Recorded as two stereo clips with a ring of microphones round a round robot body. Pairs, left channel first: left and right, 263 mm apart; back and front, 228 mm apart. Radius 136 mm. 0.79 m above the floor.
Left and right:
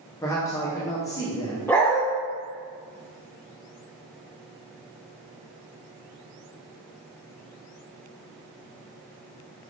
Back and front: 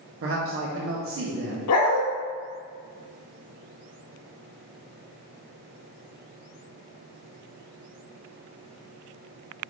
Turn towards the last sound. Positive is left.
turn(degrees=170)